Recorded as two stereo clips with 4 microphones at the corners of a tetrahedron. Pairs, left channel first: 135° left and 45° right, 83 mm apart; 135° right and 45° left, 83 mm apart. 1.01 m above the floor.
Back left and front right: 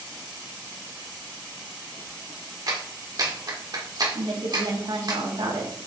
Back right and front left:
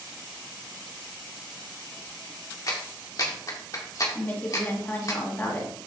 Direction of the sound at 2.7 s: 85° right.